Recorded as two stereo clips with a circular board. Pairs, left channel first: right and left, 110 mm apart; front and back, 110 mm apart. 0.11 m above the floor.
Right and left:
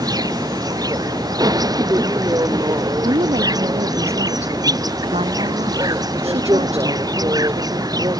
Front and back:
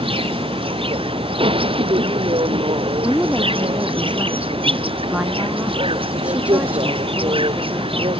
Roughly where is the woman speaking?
Left.